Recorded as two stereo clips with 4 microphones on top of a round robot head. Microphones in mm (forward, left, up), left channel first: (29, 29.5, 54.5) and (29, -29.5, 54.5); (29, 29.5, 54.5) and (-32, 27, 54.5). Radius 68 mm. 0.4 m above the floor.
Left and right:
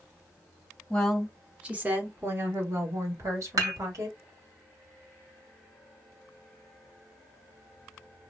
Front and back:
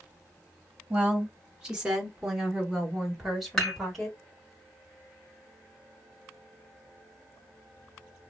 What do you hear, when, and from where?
0.9 s a woman speaking: 155° left, 1.0 m; by 4.2 s 85° right, 2.5 m
3.6 s dishes clattering: 75° right, 1.7 m